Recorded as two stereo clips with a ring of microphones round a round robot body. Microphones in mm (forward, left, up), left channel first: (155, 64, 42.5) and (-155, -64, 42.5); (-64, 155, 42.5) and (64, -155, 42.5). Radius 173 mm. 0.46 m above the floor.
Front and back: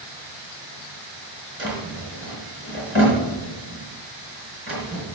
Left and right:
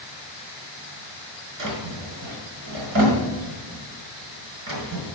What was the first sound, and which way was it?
A drawer, 105° right.